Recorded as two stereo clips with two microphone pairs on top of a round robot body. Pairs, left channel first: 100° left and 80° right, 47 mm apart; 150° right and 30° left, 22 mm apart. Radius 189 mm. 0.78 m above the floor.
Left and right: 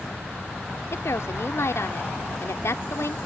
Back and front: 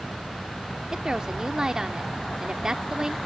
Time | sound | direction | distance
0.9 | a woman speaking | 95° left | ?